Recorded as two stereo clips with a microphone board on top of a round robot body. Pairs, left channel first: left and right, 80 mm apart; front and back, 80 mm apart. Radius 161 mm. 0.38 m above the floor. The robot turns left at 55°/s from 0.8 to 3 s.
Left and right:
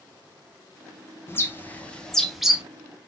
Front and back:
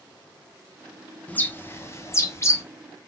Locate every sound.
1.3 s a bird: 60° left, 0.9 m; by 2.6 s 15° right, 0.9 m